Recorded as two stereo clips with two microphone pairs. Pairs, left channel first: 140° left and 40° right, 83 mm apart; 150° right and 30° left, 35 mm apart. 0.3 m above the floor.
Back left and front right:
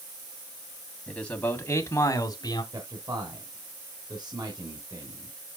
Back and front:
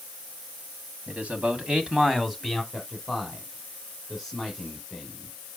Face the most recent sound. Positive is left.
turn(degrees=-55)